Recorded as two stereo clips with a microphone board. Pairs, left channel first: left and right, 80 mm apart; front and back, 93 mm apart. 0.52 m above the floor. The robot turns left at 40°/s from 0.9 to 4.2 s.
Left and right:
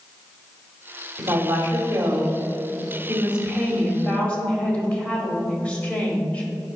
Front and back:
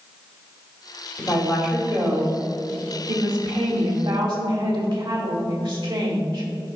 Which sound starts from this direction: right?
A woman speaking, at 1.2 s.